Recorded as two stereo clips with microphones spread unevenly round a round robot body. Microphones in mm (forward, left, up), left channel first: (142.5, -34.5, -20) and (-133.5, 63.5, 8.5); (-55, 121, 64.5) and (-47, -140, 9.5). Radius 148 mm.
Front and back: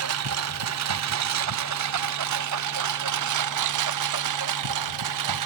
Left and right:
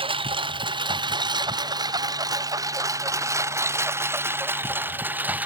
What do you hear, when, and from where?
0.0 s a lawn mower: 160° right; by 5.5 s 175° right